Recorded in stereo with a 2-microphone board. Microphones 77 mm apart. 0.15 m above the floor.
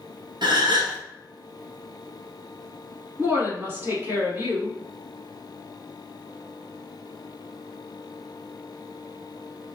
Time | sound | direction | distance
0.4 | a gasp | 70° right (ahead or behind) | 0.8 m
3.2 | a woman speaking | 30° right (ahead or behind) | 1.3 m